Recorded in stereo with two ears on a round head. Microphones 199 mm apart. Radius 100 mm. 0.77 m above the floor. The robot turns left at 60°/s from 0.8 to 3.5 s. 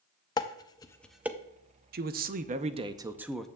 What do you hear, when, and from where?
0.4 s dishes clattering: 15° left (ahead or behind), 0.5 m; by 1.4 s 15° right (ahead or behind), 0.5 m
1.9 s a man speaking: 90° right, 0.5 m; by 3.5 s 175° left, 0.5 m